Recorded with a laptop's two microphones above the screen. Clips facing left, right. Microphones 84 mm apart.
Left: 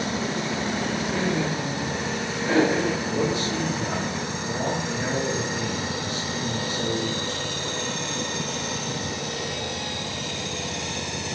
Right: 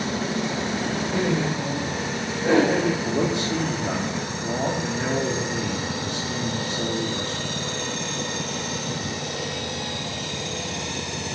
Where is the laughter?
50° right (ahead or behind), 3.5 m.